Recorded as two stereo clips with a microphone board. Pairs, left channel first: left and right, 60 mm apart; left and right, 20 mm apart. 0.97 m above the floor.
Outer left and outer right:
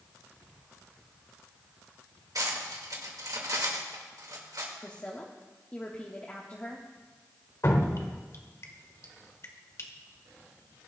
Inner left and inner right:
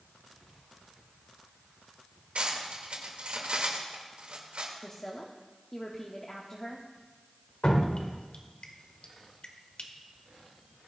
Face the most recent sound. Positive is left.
turn(degrees=55)  # may be behind; listen again after turning